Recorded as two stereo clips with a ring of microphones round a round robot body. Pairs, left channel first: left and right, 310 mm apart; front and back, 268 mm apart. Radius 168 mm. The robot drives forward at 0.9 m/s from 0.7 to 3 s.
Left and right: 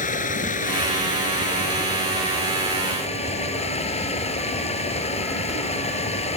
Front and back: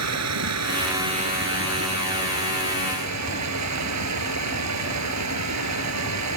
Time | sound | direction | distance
0.0 | running water | 155° left | ?